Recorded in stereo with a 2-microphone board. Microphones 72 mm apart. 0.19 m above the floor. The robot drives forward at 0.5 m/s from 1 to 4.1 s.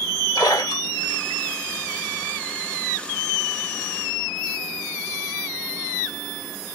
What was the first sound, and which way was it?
A splash, 65° left (ahead or behind).